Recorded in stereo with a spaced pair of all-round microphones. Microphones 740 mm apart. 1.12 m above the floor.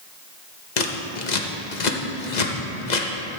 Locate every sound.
0.8 s scissors: 80° left, 1.0 m